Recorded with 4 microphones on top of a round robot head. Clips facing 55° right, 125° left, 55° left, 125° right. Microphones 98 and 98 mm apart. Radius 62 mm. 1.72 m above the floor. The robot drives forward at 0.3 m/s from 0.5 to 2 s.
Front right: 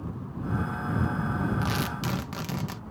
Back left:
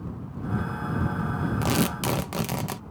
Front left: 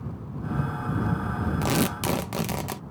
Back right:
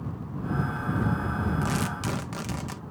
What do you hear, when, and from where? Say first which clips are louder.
1.6 s tearing paper: back left 5 dB, front left 4 dB; 80° left; by 2.8 s 85° left